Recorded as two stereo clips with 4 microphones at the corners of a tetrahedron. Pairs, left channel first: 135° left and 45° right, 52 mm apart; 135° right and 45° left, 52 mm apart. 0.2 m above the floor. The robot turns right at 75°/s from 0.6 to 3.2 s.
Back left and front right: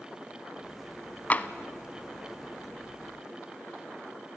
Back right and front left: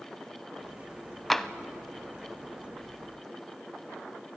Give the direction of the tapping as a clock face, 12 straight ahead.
7 o'clock.